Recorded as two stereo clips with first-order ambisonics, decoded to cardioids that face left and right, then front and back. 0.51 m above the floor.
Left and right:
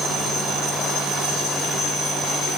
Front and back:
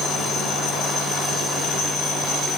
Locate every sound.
Only background noise.